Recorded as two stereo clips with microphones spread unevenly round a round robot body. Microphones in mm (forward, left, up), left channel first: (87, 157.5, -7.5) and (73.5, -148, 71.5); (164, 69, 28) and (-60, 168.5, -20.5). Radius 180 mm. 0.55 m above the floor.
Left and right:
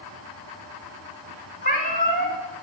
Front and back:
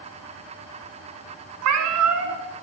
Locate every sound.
1.6 s a cat meowing: 160° left, 1.6 m